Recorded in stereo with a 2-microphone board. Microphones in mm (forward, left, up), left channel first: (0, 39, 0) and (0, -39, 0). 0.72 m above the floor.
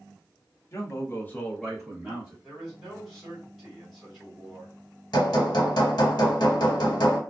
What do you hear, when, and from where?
0.7 s a man speaking: 40° left (ahead or behind), 0.8 m; by 2.3 s 10° right (ahead or behind), 1.4 m
2.4 s a man speaking: centre (ahead or behind), 1.5 m
5.1 s hammering: 65° left (ahead or behind), 1.0 m